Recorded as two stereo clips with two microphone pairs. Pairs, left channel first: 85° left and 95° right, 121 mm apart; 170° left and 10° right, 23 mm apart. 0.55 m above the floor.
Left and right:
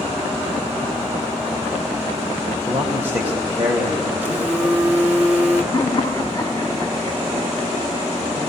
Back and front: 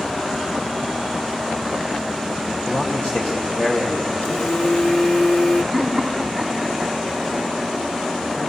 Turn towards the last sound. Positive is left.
turn(degrees=90)